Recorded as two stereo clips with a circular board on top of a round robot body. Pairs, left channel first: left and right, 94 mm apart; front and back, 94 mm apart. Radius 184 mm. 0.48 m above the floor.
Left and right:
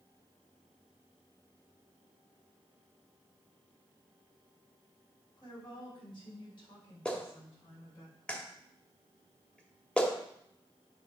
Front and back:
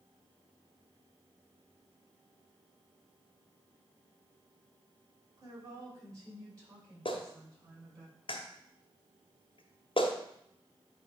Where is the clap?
10° left, 1.5 m.